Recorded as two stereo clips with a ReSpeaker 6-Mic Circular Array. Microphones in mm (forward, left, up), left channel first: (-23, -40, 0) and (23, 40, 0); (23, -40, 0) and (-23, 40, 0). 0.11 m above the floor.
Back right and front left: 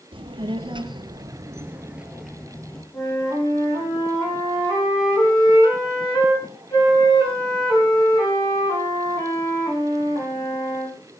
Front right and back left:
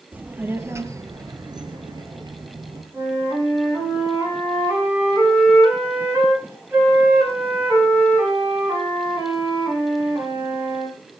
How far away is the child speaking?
About 2.5 m.